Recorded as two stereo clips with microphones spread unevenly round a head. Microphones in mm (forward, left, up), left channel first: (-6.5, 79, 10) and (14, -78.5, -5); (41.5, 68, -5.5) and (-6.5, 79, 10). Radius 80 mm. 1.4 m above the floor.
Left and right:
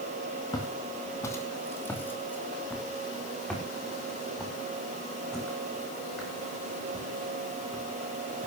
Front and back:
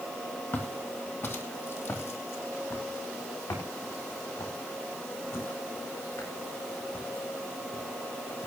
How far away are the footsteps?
About 2.5 m.